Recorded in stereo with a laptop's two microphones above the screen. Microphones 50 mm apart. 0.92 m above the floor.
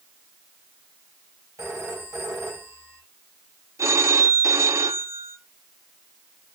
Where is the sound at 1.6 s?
85° right, 3 m.